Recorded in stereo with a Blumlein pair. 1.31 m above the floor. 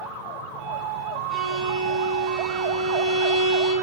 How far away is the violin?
About 5.5 m.